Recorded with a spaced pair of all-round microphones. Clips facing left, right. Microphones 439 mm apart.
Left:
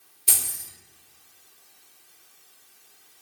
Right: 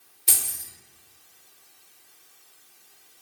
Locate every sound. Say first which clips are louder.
0.3 s keys jangling: even; 10° right (ahead or behind), 1.0 m